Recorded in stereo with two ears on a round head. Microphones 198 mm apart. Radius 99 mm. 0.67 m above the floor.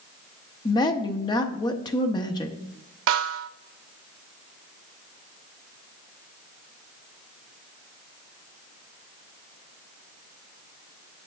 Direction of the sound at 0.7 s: 20° left (ahead or behind).